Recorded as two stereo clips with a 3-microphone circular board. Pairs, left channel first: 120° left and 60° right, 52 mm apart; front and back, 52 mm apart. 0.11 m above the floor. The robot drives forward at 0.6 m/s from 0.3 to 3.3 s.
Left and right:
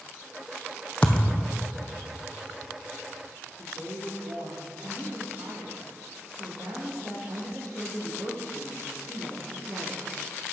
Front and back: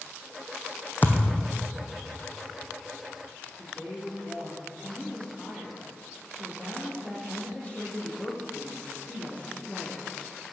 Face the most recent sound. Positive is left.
turn(degrees=-65)